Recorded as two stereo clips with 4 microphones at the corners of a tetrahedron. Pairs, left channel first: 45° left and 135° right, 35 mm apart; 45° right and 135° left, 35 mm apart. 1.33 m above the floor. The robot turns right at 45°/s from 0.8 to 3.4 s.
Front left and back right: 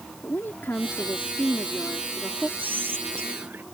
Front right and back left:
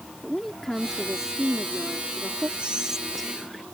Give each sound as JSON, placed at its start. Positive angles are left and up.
{"t": 0.2, "sound": "a woman speaking", "azimuth_deg": 40}
{"t": 2.6, "sound": "whispering", "azimuth_deg": -165}